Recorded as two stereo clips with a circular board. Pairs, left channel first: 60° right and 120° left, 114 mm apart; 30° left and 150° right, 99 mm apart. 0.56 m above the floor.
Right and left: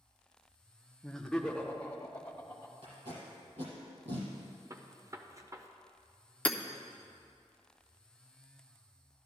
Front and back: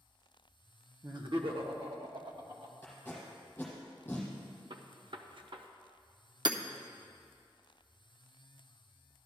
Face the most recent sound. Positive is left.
turn(degrees=-135)